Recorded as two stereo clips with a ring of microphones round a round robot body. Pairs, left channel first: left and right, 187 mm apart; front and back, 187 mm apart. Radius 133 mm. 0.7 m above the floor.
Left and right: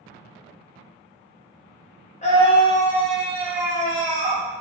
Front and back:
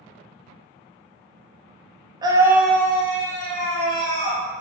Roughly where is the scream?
Behind left.